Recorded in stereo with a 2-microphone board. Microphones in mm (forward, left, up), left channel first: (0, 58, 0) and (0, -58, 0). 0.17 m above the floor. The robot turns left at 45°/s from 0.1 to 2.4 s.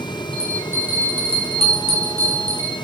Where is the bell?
175° left, 9.5 m; by 2.7 s 80° left, 9.5 m.